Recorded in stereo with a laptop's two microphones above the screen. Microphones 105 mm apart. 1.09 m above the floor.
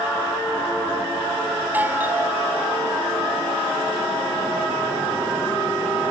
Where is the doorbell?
15° right (ahead or behind).